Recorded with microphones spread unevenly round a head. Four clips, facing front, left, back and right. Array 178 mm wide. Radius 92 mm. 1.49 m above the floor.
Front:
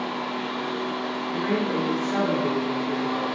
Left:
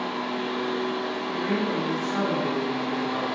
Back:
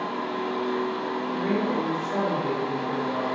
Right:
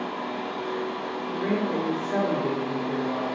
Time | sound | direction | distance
0.0 | a fan | 70° left | 1.4 m
1.3 | a woman speaking | 80° right | 0.7 m